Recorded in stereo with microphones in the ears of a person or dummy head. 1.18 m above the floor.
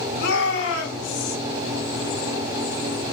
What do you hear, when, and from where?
0.2 s a shout: 70° left (ahead or behind), 4 m; by 1.4 s 75° left (ahead or behind), 4 m